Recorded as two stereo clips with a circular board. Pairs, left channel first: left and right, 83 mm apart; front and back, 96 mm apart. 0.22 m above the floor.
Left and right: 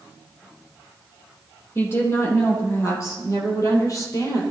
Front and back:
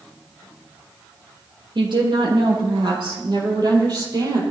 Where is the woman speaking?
150° left, 7 m; by 4.4 s 135° left, 6 m.